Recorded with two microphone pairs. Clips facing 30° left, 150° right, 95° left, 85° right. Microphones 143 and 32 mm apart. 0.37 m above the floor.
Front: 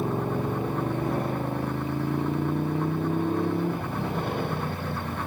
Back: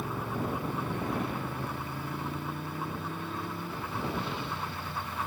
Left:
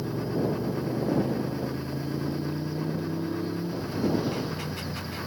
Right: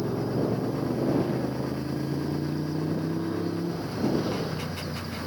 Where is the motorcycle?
20° right; by 5.3 s straight ahead.